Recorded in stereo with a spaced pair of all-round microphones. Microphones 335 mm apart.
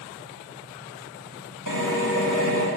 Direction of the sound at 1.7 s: 65° left (ahead or behind).